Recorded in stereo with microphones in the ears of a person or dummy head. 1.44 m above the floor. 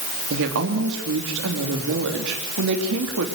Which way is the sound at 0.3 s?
70° right (ahead or behind).